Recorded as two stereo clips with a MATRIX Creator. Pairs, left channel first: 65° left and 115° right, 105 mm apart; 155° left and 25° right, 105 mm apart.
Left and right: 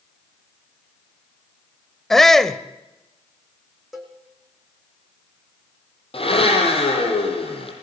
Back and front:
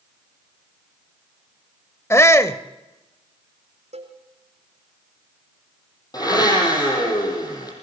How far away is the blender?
About 6 m.